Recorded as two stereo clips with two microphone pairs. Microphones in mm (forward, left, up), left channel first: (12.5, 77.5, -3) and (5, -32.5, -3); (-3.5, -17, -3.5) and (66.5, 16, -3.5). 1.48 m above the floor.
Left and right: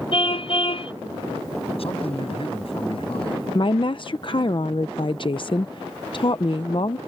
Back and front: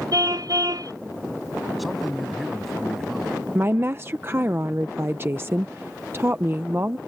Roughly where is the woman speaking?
Left.